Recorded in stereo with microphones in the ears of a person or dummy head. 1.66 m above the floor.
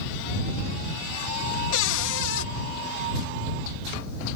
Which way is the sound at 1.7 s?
80° left.